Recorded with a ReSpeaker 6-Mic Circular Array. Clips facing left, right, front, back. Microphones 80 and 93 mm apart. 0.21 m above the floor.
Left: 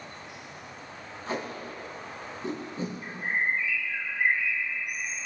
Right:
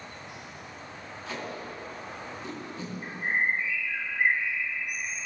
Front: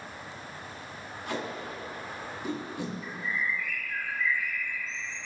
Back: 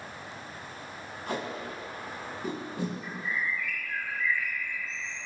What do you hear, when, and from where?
1.3 s tape being pulled: 135° left, 4.5 m
3.0 s a bird: 145° right, 3 m